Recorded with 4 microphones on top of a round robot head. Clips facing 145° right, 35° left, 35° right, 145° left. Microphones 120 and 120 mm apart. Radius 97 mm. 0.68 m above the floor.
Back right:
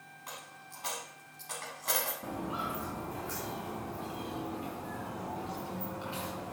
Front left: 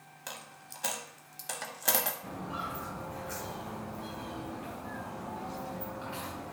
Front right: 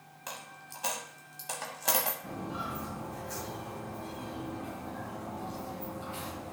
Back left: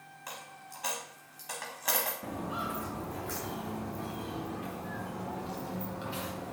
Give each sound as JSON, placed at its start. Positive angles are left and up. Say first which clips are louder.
{"t": 0.3, "sound": "a dropped coin", "louder": "front left 1 dB, front right 1 dB", "azimuth_deg": 25, "distance_m": 0.6}
{"t": 2.2, "sound": "footsteps", "louder": "back right 2 dB, back left 2 dB", "azimuth_deg": 160, "distance_m": 2.5}